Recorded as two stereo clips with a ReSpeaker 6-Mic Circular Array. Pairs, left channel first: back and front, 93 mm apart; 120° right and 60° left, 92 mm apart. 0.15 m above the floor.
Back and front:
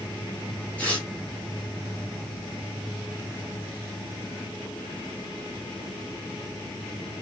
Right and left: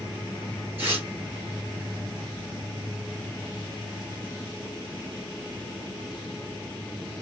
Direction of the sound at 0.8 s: 115° left.